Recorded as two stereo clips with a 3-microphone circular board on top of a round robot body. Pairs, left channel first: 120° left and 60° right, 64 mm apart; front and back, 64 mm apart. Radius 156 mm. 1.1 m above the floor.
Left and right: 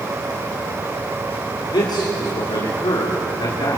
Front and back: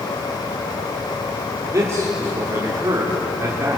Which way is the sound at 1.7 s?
130° left.